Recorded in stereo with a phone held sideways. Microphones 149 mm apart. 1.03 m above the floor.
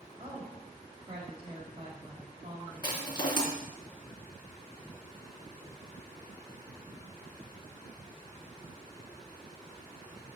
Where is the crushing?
30° left (ahead or behind), 3 m.